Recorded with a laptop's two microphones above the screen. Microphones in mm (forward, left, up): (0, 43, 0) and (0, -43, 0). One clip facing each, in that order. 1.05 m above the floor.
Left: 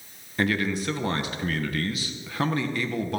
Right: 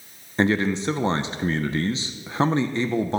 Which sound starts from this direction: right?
A man speaking, at 0.4 s.